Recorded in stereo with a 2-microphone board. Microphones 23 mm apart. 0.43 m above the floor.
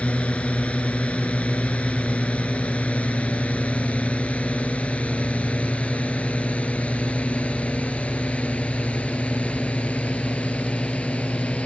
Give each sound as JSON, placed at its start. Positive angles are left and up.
{"t": 0.0, "sound": "a drone", "side_deg": 70}